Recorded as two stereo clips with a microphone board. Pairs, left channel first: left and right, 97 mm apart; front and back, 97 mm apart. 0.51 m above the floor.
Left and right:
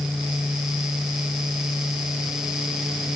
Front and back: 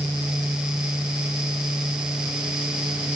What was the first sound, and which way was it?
Only background noise.